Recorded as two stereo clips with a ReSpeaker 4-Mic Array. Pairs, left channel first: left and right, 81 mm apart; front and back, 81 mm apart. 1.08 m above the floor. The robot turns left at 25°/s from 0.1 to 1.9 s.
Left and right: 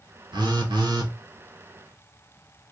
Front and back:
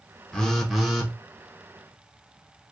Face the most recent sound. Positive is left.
turn(degrees=-120)